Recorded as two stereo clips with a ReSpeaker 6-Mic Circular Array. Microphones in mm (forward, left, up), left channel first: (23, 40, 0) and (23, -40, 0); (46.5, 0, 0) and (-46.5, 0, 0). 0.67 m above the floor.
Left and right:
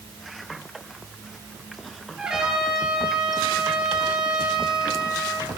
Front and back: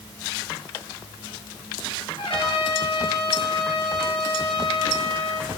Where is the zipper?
No zipper in this recording.